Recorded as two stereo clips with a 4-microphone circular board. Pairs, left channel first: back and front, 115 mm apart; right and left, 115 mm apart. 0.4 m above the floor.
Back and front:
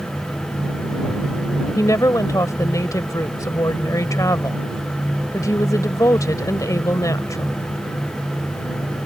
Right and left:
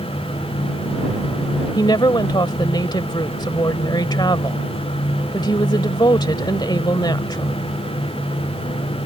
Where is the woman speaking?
130° right.